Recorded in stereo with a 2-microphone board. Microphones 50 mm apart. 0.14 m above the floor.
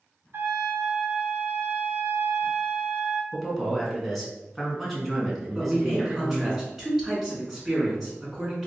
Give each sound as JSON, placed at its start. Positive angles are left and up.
{"t": 0.3, "sound": "a trumpet", "side_deg": -55, "distance_m": 0.6}
{"t": 3.3, "sound": "a man speaking", "side_deg": 0, "distance_m": 1.1}
{"t": 5.5, "sound": "a man speaking", "side_deg": -5, "distance_m": 1.6}